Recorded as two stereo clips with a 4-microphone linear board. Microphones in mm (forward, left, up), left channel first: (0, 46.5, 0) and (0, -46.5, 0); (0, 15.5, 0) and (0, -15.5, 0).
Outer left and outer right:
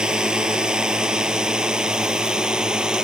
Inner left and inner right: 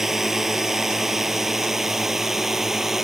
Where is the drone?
10° right (ahead or behind).